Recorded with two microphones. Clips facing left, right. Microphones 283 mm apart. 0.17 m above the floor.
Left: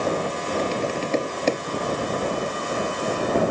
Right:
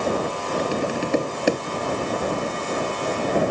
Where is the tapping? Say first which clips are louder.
Right 2 dB; 10° right (ahead or behind).